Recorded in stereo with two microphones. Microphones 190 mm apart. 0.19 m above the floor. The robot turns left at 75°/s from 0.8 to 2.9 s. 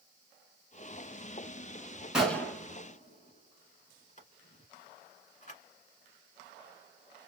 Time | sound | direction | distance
2.1 | a gunshot | 5° right (ahead or behind) | 1.6 m